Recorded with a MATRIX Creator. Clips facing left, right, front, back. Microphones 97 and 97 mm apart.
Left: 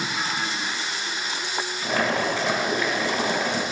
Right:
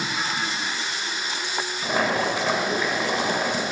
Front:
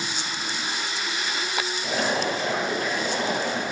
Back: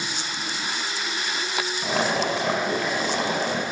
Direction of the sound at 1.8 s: 165° right.